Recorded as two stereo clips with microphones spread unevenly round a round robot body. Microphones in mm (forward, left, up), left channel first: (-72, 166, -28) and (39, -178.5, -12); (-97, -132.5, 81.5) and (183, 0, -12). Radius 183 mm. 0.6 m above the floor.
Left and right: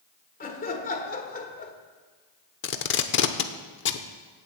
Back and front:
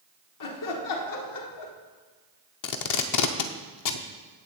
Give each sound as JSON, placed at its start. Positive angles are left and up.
{"t": 0.4, "sound": "laughter", "azimuth_deg": 170, "distance_m": 1.6}
{"t": 2.6, "sound": "tape being pulled", "azimuth_deg": 165, "distance_m": 0.8}